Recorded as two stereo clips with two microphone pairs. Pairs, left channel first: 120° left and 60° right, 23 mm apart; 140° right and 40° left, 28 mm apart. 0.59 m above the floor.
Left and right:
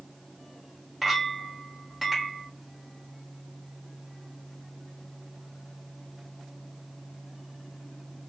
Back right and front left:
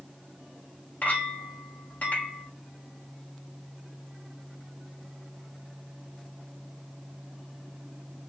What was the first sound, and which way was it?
A clink, 145° right.